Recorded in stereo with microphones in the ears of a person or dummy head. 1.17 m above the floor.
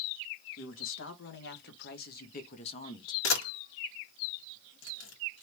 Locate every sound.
0.6 s a man speaking: 70° left (ahead or behind), 1.8 m; by 3.1 s 25° left (ahead or behind), 0.9 m
3.2 s a camera shutter: 70° left (ahead or behind), 1.8 m